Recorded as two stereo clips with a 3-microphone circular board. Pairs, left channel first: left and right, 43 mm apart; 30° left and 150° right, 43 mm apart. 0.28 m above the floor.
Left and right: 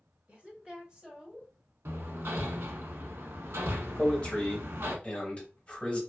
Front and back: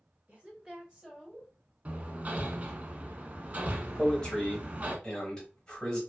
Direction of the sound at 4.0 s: 80° left.